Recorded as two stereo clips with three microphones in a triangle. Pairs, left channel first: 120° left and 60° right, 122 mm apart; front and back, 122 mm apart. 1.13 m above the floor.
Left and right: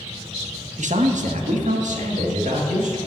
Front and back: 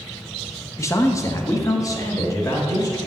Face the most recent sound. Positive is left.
turn(degrees=-60)